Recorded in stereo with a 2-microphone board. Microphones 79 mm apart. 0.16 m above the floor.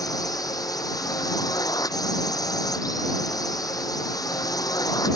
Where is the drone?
50° left (ahead or behind).